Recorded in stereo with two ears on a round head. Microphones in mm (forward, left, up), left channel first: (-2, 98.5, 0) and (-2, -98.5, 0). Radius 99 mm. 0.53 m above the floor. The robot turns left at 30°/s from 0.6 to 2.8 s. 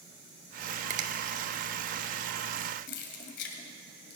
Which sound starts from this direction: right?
A finger snap, at 0.9 s.